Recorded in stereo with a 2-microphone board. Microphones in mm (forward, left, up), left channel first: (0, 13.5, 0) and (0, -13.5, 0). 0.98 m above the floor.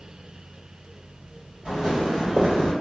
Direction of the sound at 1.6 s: 45° right (ahead or behind).